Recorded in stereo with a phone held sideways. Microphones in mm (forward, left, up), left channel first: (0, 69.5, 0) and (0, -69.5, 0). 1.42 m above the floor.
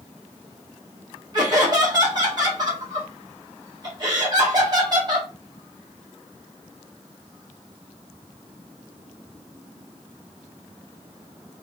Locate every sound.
1.3 s laughter: 30° right (ahead or behind), 1.7 m